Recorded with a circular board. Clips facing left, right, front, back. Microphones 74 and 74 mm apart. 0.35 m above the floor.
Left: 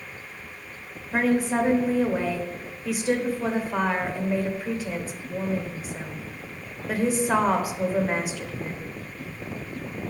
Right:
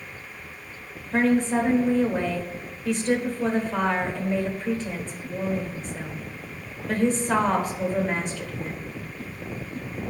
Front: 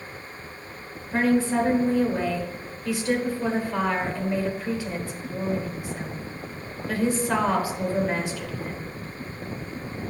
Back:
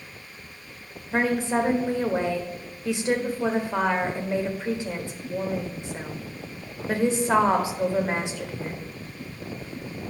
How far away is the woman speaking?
About 0.9 m.